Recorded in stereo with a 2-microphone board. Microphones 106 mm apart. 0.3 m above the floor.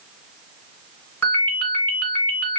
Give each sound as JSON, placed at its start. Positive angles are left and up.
{"t": 1.2, "sound": "a ringtone", "side_deg": 20, "distance_m": 2.5}